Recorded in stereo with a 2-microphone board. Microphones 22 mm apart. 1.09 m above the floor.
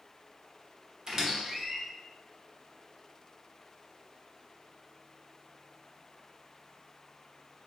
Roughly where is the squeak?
Right.